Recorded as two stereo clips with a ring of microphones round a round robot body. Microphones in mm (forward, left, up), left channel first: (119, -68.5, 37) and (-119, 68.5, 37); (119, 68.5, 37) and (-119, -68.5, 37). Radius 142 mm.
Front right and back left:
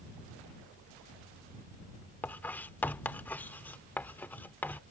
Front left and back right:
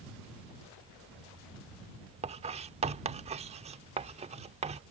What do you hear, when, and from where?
2.2 s writing: 110° right